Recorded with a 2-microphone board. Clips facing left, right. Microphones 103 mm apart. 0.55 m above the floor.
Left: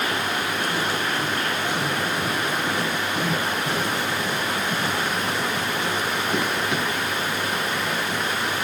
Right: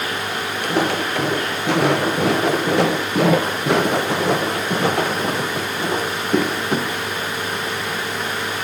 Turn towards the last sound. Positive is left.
turn(degrees=-40)  # may be behind; listen again after turning